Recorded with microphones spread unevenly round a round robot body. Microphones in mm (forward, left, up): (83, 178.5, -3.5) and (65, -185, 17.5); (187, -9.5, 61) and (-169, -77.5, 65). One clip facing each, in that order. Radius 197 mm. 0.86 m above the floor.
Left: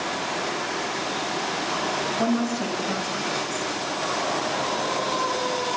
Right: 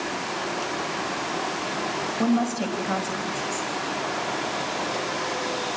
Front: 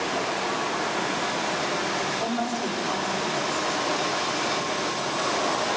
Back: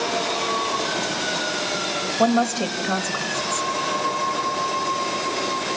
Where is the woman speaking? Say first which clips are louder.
Right 2 dB, back 11 dB; 175° left, 5 m.